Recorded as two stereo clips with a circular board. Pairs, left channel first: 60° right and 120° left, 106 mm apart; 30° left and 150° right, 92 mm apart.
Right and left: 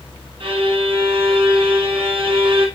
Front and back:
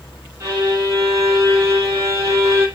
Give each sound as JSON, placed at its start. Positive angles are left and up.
{"t": 0.4, "sound": "a violin", "azimuth_deg": 155, "distance_m": 2.5}